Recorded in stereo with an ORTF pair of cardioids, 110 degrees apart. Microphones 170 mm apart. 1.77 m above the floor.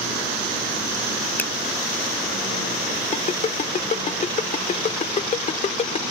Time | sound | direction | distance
1.4 | a finger snap | 10° left | ?
3.1 | a ringtone | 40° left | ?